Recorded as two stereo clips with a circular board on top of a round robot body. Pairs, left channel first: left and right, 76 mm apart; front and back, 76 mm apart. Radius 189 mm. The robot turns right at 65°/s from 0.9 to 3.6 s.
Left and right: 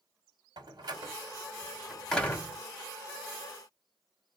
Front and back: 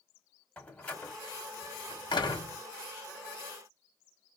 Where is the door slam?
70° right, 1.8 m; by 2.6 s 35° left, 1.8 m.